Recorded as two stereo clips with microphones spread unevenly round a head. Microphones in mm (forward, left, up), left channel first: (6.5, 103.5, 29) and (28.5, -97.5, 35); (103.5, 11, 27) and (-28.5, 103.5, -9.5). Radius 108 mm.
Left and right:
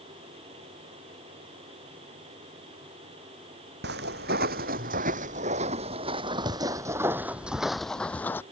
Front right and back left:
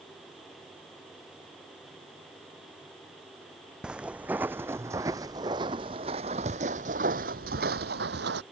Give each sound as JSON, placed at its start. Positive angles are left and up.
{"t": 3.8, "sound": "footsteps", "azimuth_deg": -125}